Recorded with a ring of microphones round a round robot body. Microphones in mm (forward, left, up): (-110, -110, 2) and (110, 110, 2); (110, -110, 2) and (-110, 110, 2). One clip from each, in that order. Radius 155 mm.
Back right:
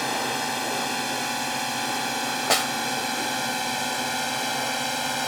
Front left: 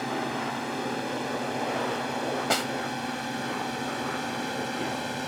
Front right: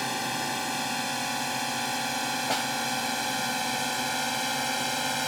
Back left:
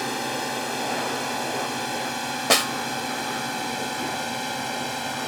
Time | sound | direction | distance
0.0 | a drone | 130° right | ?
2.5 | a snare drum | 165° left | ?